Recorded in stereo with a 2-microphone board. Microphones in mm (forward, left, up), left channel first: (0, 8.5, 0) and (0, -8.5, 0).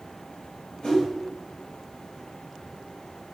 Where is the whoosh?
60° left (ahead or behind), 2.0 m.